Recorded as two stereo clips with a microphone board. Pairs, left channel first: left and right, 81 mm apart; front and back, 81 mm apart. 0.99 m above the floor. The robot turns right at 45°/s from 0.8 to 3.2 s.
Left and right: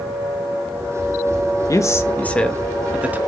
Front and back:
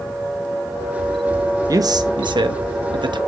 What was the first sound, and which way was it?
A man speaking, 135° left.